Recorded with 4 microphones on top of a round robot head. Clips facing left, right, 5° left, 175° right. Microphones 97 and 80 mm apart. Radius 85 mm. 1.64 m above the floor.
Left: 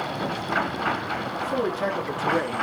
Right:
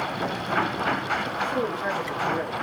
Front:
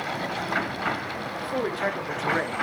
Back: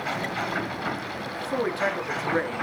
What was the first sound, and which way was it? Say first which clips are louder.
A man speaking: left 5 dB, back 2 dB; 125° left.